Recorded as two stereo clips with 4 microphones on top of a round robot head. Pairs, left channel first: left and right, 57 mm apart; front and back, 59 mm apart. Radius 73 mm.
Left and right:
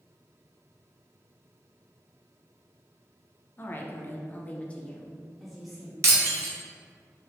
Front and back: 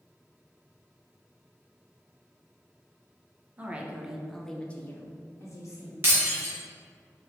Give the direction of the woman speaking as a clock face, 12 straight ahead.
8 o'clock.